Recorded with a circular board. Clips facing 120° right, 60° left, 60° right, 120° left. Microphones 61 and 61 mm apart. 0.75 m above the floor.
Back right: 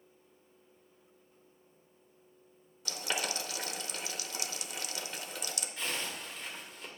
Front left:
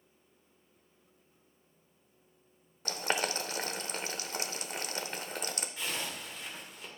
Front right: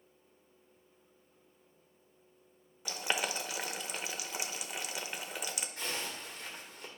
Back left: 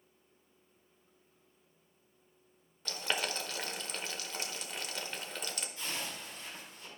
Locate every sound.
2.9 s boiling: 20° left, 0.6 m
5.8 s a zipper: 25° right, 2 m